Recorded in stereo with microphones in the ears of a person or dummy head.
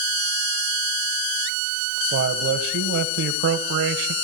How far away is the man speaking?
About 1.4 m.